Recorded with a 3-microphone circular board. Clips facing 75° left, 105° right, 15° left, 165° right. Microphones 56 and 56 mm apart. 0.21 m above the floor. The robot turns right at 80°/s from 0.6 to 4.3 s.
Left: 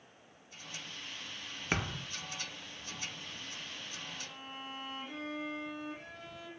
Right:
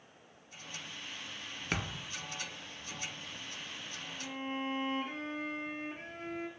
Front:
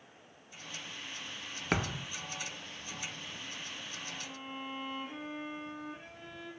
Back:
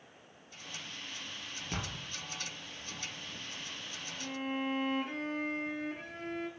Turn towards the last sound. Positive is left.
turn(degrees=-150)